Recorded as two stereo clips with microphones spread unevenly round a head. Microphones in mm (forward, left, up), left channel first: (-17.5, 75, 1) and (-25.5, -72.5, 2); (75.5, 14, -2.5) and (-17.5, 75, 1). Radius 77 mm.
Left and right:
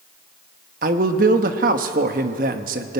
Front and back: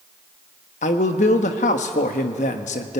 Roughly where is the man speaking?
Ahead right.